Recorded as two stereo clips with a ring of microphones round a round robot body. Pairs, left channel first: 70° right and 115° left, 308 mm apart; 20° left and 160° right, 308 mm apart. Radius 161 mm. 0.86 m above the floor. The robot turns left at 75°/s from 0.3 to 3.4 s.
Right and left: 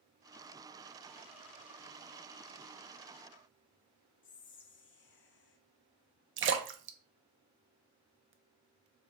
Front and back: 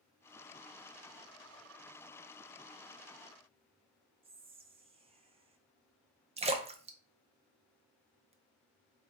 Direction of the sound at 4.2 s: 95° right.